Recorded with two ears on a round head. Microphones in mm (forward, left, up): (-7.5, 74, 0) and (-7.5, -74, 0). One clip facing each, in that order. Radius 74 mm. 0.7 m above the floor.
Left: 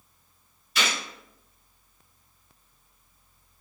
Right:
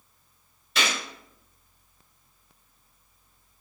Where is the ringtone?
I don't hear a ringtone.